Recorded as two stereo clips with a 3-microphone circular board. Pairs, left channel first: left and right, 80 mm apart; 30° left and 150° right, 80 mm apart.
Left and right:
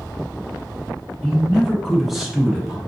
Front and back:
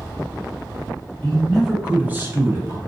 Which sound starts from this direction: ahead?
A man speaking, at 1.2 s.